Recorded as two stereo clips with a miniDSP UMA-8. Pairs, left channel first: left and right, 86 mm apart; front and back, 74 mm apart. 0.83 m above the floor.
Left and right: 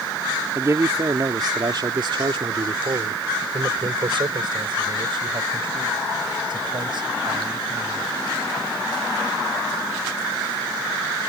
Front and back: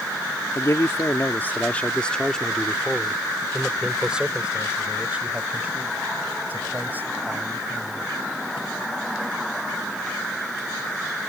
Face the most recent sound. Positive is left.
turn(degrees=-115)